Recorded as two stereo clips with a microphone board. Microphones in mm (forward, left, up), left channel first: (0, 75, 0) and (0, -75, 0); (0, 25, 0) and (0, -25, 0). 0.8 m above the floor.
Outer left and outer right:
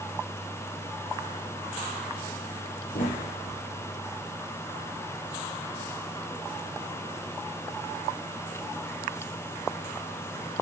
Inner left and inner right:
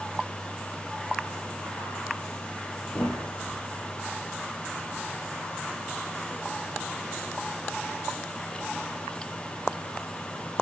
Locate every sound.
2.9 s a thud: 90° left, 9 m